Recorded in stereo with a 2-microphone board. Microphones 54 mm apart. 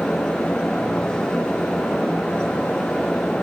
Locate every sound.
Only background noise.